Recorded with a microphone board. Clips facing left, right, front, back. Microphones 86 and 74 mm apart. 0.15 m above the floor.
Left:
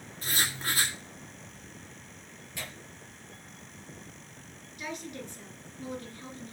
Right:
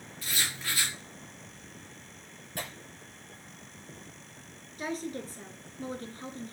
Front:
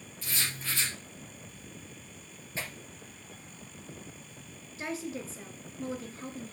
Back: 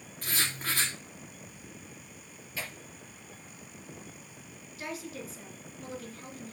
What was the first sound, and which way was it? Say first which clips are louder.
Writing: left 3 dB, back 3 dB; 135° left.